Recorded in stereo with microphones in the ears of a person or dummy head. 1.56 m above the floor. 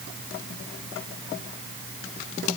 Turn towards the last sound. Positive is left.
No sound to turn to.